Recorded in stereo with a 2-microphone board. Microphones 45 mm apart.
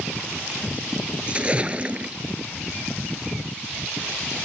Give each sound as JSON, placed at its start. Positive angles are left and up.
{"t": 1.3, "sound": "a splash", "side_deg": -25}